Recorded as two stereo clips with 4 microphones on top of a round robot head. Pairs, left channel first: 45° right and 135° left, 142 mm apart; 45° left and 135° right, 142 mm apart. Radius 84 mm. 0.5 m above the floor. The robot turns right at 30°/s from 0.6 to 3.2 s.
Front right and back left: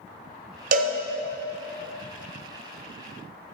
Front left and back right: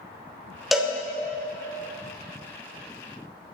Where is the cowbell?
135° left, 1.0 m; by 1.0 s 145° left, 1.0 m.